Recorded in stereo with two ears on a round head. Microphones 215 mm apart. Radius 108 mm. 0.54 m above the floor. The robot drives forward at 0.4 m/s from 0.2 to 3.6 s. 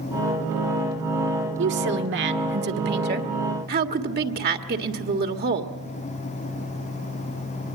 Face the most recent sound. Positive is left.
turn(degrees=-40)  # may be behind; listen again after turning